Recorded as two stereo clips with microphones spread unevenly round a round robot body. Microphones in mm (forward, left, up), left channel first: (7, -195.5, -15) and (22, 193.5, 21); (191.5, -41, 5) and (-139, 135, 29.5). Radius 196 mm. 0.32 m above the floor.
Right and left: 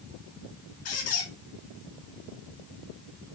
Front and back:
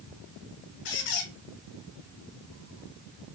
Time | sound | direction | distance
0.8 | a squeak | 40° right | 0.8 m